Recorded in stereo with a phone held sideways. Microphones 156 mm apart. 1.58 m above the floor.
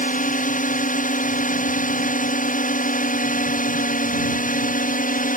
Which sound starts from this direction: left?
A drone, at 0.0 s.